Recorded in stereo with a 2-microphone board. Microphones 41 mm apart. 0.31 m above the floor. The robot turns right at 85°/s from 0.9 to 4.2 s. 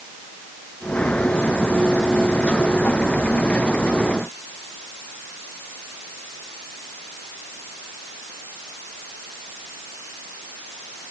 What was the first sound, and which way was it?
Only background noise.